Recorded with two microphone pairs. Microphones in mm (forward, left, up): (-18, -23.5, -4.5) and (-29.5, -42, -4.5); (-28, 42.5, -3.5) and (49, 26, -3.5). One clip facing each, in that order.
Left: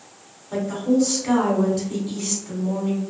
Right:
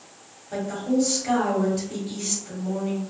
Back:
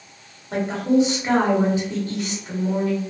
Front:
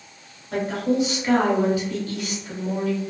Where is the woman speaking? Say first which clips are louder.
Left 3 dB, back 3 dB; 150° left, 1.0 m.